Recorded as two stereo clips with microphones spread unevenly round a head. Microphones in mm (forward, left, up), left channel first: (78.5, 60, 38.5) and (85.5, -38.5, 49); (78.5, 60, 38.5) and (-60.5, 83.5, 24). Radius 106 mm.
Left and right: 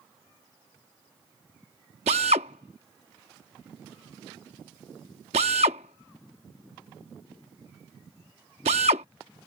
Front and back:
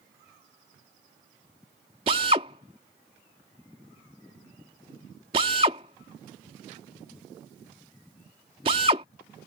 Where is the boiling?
No boiling in this recording.